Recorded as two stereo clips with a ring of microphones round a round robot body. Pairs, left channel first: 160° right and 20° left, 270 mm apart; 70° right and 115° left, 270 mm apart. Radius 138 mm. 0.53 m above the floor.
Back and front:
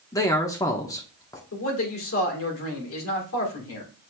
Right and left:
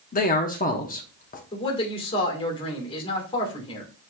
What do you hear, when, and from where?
0.1 s a man speaking: 90° right, 0.7 m
1.5 s a man speaking: 135° right, 1.8 m